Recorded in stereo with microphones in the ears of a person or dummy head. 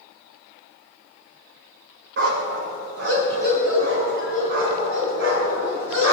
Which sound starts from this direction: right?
A dog barking, at 2.2 s.